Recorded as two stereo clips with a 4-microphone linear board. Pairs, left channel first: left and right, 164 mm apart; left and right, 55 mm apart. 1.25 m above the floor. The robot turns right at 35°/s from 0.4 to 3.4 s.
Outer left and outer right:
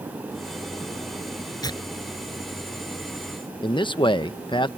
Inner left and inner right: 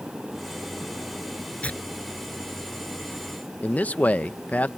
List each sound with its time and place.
1.6 s tearing paper: 25° left (ahead or behind); by 3.4 s 80° left
3.6 s a man speaking: 30° left (ahead or behind)